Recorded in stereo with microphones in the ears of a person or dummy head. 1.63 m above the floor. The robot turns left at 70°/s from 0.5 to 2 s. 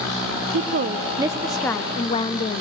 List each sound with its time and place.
0.5 s a woman speaking: 110° right, 0.6 m; by 2.6 s 145° left, 0.6 m